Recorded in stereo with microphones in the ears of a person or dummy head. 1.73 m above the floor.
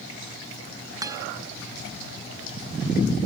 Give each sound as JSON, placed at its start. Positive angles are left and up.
{"t": 1.0, "sound": "a guitar", "side_deg": -25}